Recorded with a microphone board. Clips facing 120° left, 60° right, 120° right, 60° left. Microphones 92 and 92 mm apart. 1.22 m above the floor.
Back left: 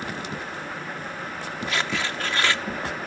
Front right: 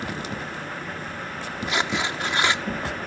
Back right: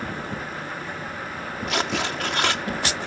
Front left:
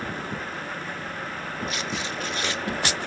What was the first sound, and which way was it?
Tearing paper, 130° right.